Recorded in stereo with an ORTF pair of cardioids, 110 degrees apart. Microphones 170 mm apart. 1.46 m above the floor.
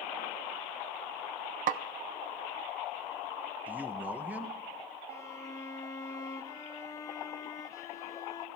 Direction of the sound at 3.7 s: 10° right.